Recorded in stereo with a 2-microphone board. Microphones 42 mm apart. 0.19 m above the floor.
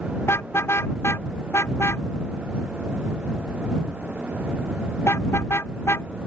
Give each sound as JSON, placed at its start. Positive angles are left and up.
{"t": 0.2, "sound": "a car horn", "side_deg": 85}